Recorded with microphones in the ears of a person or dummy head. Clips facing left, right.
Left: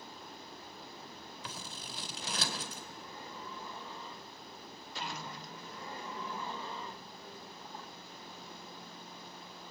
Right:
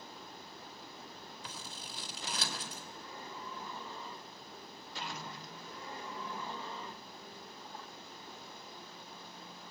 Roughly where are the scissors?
Left.